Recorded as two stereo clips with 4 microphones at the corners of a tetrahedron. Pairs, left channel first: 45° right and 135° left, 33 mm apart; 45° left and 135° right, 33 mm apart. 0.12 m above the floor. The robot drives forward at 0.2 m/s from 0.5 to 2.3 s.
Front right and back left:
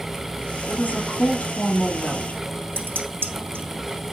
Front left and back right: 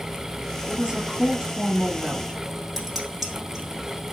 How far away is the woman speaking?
About 2.5 m.